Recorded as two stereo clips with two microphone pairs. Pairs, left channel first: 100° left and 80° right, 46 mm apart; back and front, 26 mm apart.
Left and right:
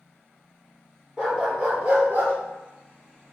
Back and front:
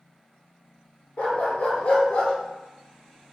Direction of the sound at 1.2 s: 150° right.